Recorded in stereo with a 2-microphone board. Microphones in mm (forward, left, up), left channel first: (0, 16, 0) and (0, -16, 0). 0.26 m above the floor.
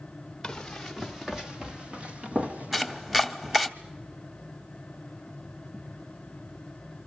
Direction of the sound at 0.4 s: 10° left (ahead or behind).